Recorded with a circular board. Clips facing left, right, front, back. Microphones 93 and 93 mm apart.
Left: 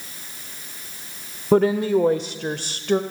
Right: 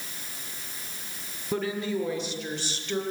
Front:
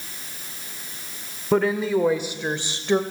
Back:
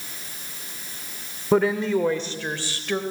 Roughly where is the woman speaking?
Left.